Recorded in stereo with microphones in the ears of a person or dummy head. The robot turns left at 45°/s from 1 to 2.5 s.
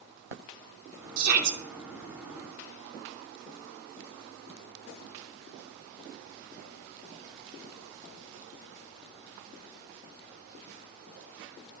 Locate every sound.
1.2 s a shout: 45° right (ahead or behind), 1.3 m; by 1.6 s 65° right (ahead or behind), 1.3 m